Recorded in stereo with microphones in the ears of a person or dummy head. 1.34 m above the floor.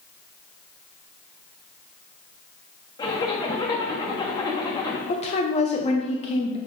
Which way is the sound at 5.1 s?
30° left (ahead or behind).